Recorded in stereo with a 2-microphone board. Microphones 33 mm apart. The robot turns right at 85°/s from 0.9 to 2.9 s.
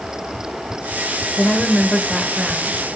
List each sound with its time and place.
1.4 s a woman speaking: 100° left, 1.6 m; by 2.8 s 135° right, 1.6 m